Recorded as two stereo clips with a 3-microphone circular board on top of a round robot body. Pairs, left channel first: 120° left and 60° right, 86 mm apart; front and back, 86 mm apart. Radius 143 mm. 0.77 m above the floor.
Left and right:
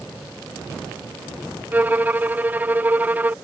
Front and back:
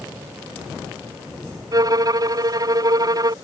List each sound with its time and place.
1.7 s a violin: 135° right